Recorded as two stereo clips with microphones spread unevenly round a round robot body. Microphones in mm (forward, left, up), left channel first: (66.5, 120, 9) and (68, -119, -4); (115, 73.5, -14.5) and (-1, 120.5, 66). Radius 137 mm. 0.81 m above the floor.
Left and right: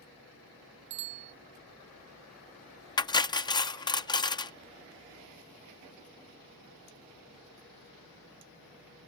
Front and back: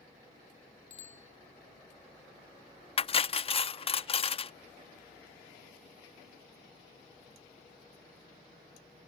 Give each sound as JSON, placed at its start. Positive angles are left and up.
{"t": 0.9, "sound": "a bicycle bell", "azimuth_deg": -80}
{"t": 3.0, "sound": "cutlery clinking", "azimuth_deg": 15}